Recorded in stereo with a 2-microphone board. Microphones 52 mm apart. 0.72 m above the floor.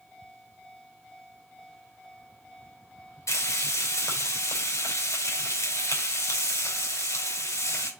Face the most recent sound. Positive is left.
turn(degrees=75)  # may be behind; listen again after turning